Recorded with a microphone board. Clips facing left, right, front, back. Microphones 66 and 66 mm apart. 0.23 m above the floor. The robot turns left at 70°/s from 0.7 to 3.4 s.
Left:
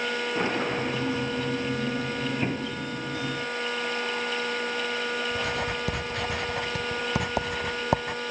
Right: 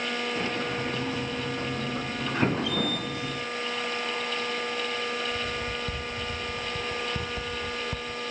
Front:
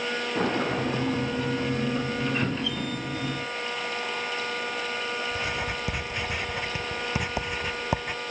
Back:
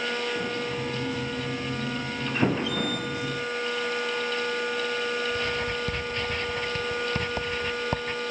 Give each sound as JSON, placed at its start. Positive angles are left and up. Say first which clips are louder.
{"t": 0.3, "sound": "a sliding door", "louder": "left 3 dB, front 4 dB", "azimuth_deg": 25}
{"t": 2.4, "sound": "an explosion", "louder": "right 3 dB, back 4 dB", "azimuth_deg": -160}
{"t": 5.3, "sound": "writing", "louder": "left 3 dB, back 2 dB", "azimuth_deg": 80}